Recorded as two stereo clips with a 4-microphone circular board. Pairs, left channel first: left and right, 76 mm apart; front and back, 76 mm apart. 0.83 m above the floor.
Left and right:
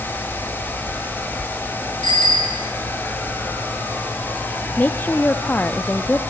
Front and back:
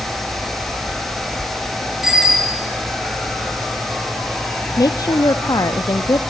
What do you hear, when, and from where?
2.0 s a bicycle bell: 95° left, 8.5 m
4.8 s a woman speaking: 25° left, 0.8 m